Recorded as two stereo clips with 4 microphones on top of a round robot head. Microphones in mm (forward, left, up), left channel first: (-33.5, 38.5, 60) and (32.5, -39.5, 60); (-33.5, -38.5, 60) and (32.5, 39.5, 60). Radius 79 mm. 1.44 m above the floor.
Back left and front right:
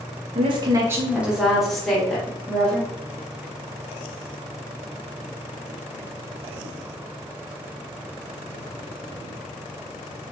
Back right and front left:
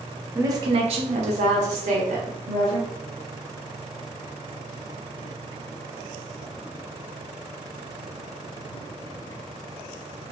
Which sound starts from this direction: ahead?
A woman speaking, at 0.3 s.